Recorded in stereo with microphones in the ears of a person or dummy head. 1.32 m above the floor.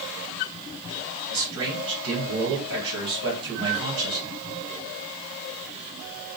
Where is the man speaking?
75° right (ahead or behind), 2 m.